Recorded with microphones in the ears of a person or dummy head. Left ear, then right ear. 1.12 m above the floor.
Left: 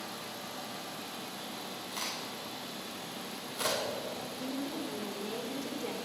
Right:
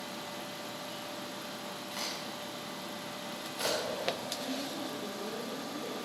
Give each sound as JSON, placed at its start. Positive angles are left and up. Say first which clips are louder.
{"t": 1.9, "sound": "a crack", "louder": "even", "side_deg": 0, "distance_m": 5.0}
{"t": 4.4, "sound": "a woman speaking", "louder": "right 1 dB", "side_deg": 55, "distance_m": 3.5}